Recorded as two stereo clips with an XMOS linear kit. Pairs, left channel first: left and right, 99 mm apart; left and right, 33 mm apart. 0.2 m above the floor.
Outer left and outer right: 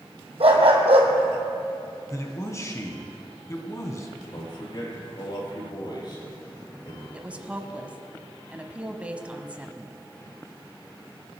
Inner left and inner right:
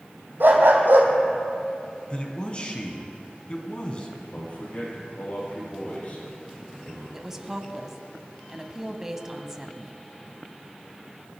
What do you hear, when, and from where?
0.4 s a dog barking: 75° right (ahead or behind), 2 m
2.1 s a man speaking: 35° left (ahead or behind), 1.8 m
4.3 s a man speaking: 50° left (ahead or behind), 5.5 m
7.1 s a woman speaking: 15° right (ahead or behind), 1.0 m